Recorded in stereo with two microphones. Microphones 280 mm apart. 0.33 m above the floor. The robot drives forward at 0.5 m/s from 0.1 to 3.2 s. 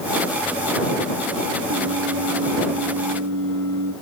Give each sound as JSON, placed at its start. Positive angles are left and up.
{"t": 1.7, "sound": "singing", "side_deg": -85, "distance_m": 6.0}